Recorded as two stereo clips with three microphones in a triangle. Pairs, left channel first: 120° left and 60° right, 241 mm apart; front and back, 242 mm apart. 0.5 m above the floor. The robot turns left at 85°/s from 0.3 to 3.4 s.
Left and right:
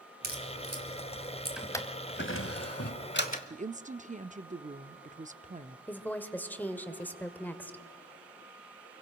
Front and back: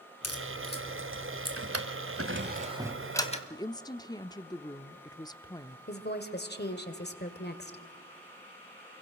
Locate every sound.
0.2 s a crack: 10° right, 3 m; by 1.6 s 120° right, 3 m
1.6 s a drawer: 145° right, 1.3 m; by 3.4 s 55° left, 1.3 m
3.5 s a woman speaking: 60° right, 0.7 m
5.9 s a woman speaking: 40° left, 1.7 m